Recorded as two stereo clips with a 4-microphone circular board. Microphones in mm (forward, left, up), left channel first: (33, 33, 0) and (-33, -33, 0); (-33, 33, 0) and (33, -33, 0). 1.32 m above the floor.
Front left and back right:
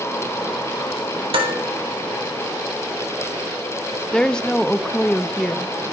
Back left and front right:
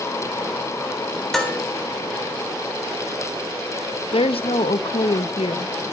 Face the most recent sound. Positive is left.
turn(degrees=125)